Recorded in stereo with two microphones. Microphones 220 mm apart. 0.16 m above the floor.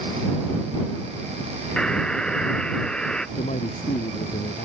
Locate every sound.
1.8 s a buzzer: 5° left (ahead or behind)
3.4 s a man speaking: 35° left (ahead or behind)